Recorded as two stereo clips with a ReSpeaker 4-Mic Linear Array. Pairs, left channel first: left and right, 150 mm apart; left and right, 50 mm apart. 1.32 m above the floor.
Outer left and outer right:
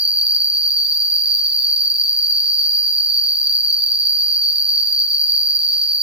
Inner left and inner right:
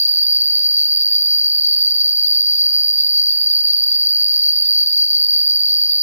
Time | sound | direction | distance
0.0 | an insect | 40° right (ahead or behind) | 1.1 m